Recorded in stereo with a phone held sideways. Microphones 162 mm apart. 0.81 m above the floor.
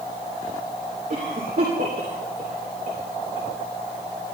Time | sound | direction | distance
1.1 | a cough | 65° right (ahead or behind) | 2.5 m